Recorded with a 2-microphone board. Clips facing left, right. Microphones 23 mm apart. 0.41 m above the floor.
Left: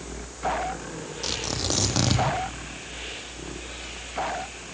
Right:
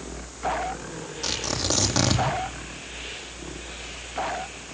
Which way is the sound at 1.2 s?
5° right (ahead or behind).